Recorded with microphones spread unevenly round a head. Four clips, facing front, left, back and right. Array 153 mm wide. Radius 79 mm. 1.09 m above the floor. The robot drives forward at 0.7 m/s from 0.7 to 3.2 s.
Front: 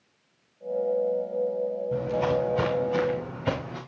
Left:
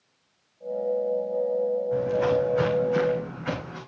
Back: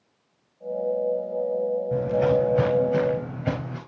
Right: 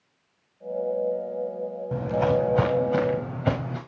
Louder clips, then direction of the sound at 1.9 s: Right 3 dB, back 5 dB; 105° right.